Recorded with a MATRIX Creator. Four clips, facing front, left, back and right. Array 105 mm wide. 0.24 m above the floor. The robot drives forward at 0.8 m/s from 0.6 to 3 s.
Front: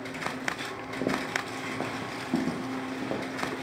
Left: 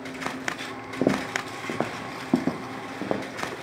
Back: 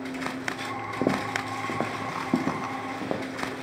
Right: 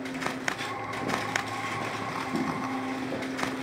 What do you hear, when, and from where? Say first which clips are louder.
1.0 s footsteps: left 8 dB, back 4 dB; 110° left, 0.5 m; by 3.6 s 90° left, 1.5 m